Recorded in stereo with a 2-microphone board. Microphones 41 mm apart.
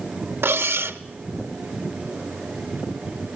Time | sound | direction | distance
0.4 | cutlery clinking | 70° right (ahead or behind) | 0.7 m